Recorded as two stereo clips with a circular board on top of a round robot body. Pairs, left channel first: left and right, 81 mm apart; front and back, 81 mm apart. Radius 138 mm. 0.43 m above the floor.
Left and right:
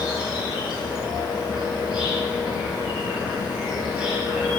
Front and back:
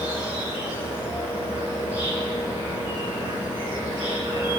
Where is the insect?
165° right, 6.5 m.